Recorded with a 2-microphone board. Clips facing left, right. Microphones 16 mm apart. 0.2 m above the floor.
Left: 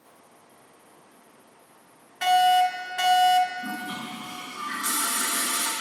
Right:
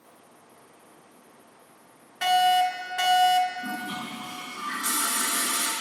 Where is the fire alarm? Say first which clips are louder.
Left 2 dB; 5° right (ahead or behind), 2.5 m.